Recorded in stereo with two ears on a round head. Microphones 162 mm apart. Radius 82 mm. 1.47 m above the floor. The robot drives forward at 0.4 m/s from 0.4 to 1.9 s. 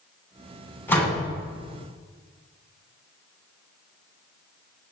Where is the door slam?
10° left (ahead or behind), 10 m.